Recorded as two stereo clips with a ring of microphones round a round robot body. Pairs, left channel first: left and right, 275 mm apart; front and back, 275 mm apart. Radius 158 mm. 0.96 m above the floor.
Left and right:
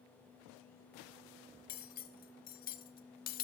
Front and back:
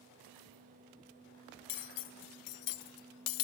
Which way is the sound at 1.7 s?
25° left.